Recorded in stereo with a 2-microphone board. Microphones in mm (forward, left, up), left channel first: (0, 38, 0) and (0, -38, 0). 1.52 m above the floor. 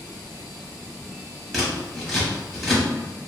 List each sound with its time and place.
1.5 s scissors: 5° left (ahead or behind), 1.1 m